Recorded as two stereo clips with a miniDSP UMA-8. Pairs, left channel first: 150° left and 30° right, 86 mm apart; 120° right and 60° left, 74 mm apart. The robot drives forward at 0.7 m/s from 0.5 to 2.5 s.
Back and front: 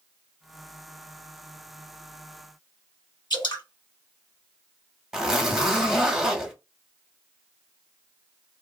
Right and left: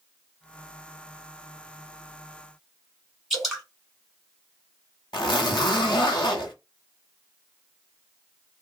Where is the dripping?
150° left, 1.4 m.